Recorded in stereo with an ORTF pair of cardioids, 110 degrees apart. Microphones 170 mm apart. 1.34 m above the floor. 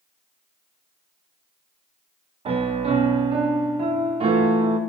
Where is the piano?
40° right, 0.7 m.